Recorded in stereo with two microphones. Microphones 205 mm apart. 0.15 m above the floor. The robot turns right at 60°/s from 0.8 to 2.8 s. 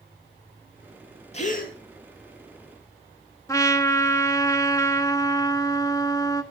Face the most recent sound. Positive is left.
turn(degrees=15)  # may be behind; listen again after turning